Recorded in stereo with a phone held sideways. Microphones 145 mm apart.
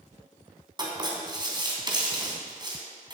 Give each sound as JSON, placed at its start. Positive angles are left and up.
{"t": 0.8, "sound": "writing", "side_deg": -30, "distance_m": 3.0}